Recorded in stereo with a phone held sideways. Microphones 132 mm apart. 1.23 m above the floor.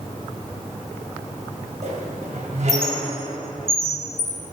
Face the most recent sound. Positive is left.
turn(degrees=-65)  # may be behind; listen again after turning